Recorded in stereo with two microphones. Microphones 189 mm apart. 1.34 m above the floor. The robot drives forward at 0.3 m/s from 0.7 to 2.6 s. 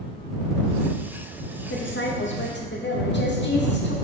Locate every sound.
1.7 s a woman speaking: 75° left (ahead or behind), 0.5 m; by 3.9 s 65° left (ahead or behind), 0.6 m